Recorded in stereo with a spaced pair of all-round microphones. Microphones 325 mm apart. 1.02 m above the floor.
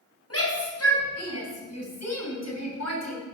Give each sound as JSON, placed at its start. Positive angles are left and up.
{"t": 0.3, "sound": "a shout", "side_deg": 45, "distance_m": 7.0}